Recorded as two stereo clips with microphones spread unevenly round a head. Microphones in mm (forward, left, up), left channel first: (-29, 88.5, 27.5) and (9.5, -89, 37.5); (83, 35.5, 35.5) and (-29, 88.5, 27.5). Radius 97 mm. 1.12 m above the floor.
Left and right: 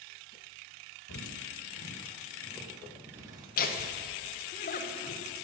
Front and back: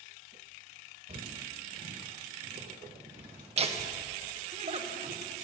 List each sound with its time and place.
1.1 s footsteps: 120° left, 2.5 m; by 3.5 s 145° right, 3 m
3.6 s laughter: 130° left, 1.2 m